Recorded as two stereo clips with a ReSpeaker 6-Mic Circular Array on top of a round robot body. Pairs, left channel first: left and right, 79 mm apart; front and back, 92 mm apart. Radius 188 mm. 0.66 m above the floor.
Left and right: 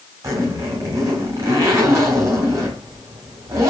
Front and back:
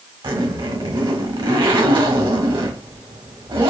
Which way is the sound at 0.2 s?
145° right.